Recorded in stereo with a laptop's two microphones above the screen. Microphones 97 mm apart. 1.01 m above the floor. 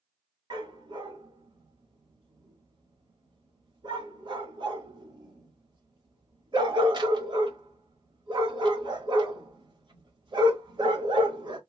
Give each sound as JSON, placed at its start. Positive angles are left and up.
{"t": 0.5, "sound": "a dog barking", "side_deg": -55, "distance_m": 1.3}